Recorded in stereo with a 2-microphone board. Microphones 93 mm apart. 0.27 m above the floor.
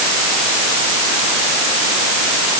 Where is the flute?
I don't hear a flute.